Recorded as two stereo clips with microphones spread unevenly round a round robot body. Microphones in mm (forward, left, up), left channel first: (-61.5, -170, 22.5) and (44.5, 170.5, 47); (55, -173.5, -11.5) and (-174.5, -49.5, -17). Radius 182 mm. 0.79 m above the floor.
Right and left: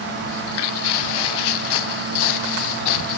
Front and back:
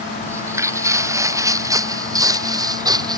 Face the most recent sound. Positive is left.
turn(degrees=-135)